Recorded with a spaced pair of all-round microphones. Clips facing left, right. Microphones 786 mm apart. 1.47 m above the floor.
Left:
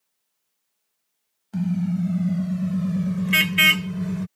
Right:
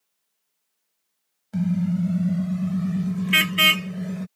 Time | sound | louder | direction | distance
1.5 | a car horn | right 1 dB | 15° right (ahead or behind) | ?